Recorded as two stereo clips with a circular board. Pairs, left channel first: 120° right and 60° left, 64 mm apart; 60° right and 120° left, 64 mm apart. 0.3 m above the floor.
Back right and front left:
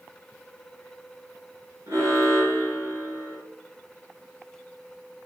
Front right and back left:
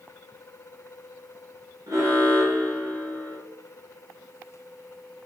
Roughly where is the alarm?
Left.